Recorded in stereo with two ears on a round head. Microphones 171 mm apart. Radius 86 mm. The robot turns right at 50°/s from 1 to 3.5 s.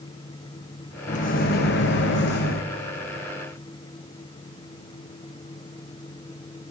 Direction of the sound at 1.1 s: 40° left.